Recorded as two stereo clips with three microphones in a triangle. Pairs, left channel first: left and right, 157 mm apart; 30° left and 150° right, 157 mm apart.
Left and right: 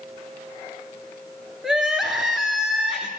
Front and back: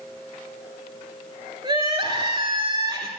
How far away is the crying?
About 1.4 m.